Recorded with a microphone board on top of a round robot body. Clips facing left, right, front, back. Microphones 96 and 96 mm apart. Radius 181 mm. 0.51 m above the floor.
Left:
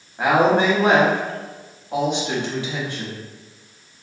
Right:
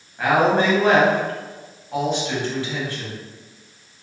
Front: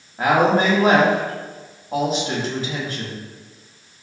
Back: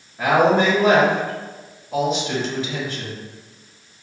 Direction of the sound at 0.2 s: 25° left.